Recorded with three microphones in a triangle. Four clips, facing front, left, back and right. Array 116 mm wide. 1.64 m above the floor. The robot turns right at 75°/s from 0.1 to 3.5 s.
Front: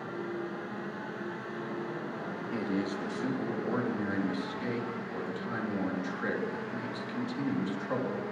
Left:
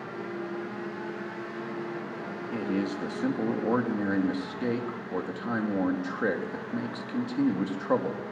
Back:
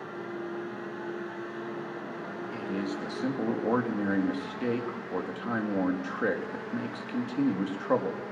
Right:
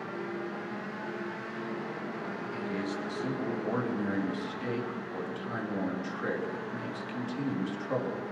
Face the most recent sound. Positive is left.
turn(degrees=135)